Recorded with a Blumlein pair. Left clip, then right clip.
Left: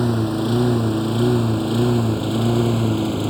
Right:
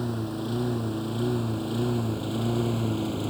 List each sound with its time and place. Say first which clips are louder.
0.0 s a lawn mower: left 10 dB; 60° left; by 3.3 s 70° left